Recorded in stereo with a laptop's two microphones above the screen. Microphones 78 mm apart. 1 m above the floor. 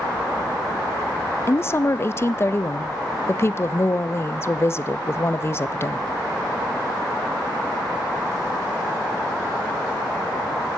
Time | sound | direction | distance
1.5 | a woman speaking | 35° left (ahead or behind) | 0.6 m